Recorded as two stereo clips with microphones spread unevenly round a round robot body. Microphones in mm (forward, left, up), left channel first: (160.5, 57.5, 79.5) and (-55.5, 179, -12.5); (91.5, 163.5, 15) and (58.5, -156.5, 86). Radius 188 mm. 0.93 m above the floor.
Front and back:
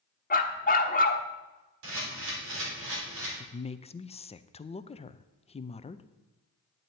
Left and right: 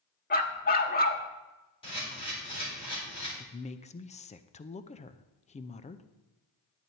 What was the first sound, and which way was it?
A dog barking, 20° left.